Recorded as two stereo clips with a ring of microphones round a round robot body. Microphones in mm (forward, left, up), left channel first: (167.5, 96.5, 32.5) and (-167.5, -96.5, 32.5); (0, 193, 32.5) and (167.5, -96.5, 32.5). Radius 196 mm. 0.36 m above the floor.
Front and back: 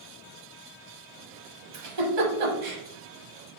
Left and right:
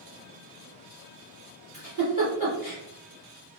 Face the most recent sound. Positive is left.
turn(degrees=-165)